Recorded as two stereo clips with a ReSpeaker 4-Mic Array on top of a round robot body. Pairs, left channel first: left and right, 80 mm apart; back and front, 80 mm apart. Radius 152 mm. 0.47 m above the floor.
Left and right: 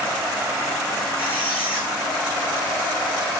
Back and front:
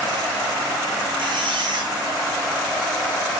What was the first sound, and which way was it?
A squeak, 25° left.